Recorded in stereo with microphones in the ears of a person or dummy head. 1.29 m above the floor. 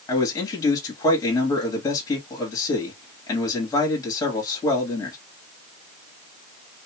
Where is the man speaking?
20° left (ahead or behind), 1.6 m.